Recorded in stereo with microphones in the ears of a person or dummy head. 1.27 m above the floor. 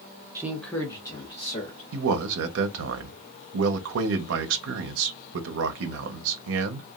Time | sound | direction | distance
0.3 | a man speaking | 25° right (ahead or behind) | 0.5 m
1.9 | a man speaking | 80° right | 0.6 m